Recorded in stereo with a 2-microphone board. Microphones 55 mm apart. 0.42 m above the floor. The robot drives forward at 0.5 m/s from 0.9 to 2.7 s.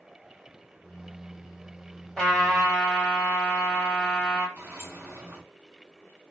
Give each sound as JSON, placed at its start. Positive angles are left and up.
{"t": 2.2, "sound": "a trumpet", "side_deg": 10, "distance_m": 2.0}
{"t": 4.6, "sound": "a sliding door", "side_deg": -35, "distance_m": 1.5}